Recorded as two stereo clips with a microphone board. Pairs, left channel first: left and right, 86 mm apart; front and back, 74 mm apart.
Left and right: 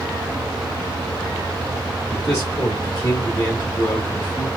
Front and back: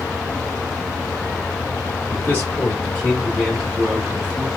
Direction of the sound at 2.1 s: 20° left.